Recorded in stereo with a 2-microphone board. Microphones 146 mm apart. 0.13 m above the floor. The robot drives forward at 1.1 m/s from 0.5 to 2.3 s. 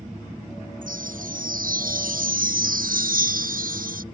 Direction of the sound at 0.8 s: 70° right (ahead or behind).